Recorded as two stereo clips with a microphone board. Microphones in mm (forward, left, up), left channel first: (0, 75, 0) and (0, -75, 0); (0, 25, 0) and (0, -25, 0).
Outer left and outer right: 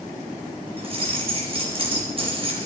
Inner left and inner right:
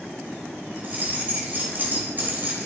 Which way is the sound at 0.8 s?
40° right (ahead or behind).